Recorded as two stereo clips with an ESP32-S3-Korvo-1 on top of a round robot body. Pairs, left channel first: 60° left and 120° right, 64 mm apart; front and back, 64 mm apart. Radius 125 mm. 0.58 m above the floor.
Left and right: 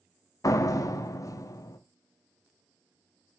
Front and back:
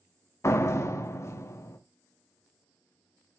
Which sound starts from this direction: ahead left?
A door slam, at 0.4 s.